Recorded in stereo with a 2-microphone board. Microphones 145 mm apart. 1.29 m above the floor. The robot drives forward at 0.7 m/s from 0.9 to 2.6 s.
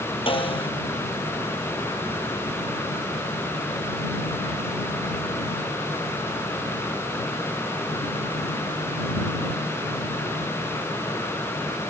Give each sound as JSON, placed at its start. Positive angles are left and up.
{"t": 0.3, "sound": "a snare drum", "side_deg": 40}